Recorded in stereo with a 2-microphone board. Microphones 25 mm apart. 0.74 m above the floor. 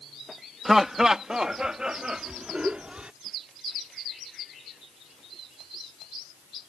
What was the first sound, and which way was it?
Laughter, 15° right (ahead or behind).